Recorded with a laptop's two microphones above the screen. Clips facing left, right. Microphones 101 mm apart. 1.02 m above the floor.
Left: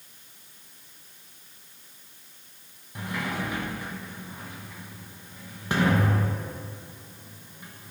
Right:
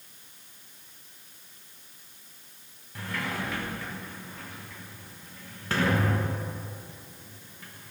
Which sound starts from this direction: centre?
A sliding door, at 3.0 s.